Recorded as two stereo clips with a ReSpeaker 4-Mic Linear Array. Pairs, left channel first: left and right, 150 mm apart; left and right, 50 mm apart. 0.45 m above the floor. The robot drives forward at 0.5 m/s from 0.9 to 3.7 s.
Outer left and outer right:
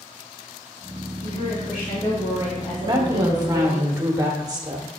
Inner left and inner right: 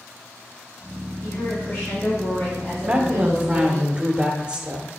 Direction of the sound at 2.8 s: 30° right (ahead or behind).